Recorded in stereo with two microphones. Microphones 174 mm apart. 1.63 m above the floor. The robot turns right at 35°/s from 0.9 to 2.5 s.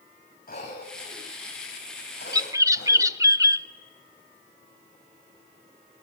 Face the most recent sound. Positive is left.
turn(degrees=-20)  # may be behind; listen again after turning